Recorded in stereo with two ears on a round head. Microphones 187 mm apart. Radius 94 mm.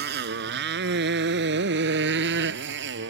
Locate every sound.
0.0 s a motorcycle: 55° right (ahead or behind); by 3.1 s 60° right (ahead or behind)